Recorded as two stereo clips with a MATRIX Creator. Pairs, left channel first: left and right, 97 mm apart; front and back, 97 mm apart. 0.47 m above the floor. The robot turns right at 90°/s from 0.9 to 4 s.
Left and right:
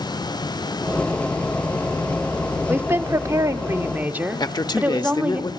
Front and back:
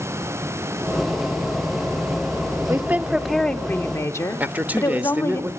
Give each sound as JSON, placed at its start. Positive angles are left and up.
{"t": 2.7, "sound": "a woman speaking", "azimuth_deg": -150, "distance_m": 1.0}
{"t": 4.4, "sound": "a man speaking", "azimuth_deg": 110, "distance_m": 1.2}